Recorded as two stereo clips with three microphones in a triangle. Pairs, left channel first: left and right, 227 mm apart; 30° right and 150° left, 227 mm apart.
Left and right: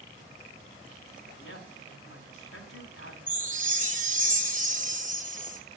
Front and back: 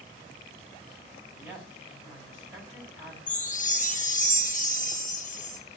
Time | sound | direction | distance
1.4 | a woman speaking | 70° left | 3 m
3.3 | a chime | 60° right | 1.2 m